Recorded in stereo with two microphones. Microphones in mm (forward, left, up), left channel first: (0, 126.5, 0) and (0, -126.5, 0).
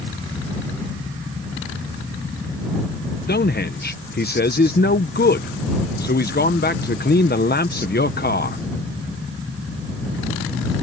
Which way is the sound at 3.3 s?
40° left (ahead or behind).